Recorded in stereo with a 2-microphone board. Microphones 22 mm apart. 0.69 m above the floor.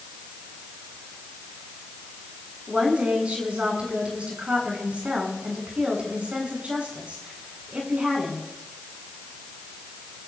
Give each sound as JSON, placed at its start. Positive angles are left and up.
{"t": 2.7, "sound": "a woman speaking", "side_deg": -70, "distance_m": 8.5}